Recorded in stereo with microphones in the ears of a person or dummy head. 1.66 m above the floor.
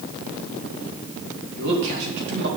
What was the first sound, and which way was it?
A man speaking, 65° right (ahead or behind).